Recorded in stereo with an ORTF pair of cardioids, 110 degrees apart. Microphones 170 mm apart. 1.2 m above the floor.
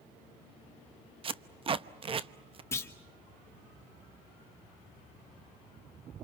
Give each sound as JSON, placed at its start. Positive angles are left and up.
{"t": 1.2, "sound": "tape being pulled", "azimuth_deg": -35, "distance_m": 0.9}
{"t": 2.7, "sound": "a clunk", "azimuth_deg": 15, "distance_m": 2.5}